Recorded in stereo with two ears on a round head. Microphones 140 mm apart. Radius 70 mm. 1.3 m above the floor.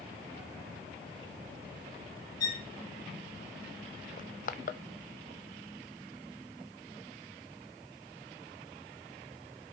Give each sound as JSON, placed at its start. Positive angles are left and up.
{"t": 2.4, "sound": "a violin", "side_deg": 25, "distance_m": 2.5}
{"t": 4.2, "sound": "crushing", "side_deg": 60, "distance_m": 0.8}